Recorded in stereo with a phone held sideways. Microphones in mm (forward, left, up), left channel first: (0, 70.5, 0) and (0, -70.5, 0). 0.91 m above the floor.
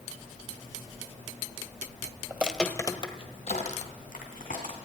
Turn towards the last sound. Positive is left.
turn(degrees=75)  # may be behind; listen again after turning